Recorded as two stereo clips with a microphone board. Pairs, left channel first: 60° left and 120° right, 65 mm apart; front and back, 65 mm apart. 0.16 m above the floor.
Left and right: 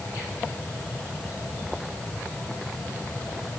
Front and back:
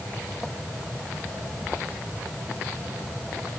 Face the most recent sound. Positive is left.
No sound to turn to.